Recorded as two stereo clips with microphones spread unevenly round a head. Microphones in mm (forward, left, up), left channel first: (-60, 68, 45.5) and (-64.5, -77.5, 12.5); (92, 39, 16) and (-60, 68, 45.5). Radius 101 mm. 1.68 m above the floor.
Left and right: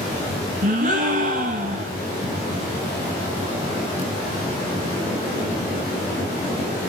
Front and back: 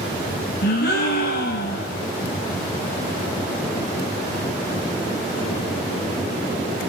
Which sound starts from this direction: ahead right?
A gasp, at 0.6 s.